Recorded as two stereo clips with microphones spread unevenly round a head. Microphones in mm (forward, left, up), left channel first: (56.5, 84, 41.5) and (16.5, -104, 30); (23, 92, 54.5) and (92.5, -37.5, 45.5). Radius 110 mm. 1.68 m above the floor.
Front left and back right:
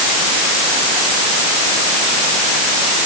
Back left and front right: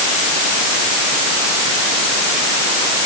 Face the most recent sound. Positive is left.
No sound to turn to.